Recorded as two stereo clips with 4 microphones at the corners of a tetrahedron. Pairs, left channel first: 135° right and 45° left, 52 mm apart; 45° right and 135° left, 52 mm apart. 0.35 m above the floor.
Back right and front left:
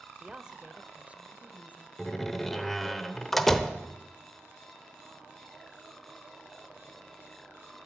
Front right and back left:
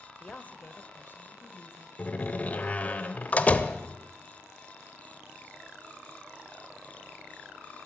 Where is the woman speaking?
15° right, 0.9 m; by 1.9 s 10° right, 1.9 m.